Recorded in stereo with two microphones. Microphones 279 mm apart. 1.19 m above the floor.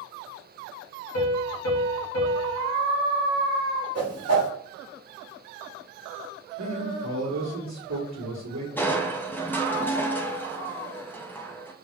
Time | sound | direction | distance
1.1 | a piano | 60° left (ahead or behind) | 0.9 m
4.0 | a whoosh | 60° right (ahead or behind) | 1.1 m
6.6 | a man speaking | 80° right | 1.0 m
8.8 | crushing | 5° left (ahead or behind) | 0.5 m